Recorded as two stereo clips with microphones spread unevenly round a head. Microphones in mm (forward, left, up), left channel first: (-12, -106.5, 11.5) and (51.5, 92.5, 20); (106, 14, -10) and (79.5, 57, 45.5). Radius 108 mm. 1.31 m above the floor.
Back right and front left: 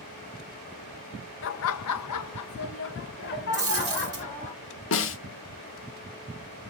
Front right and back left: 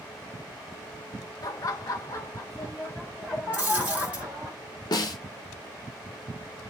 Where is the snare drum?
80° right, 0.8 m.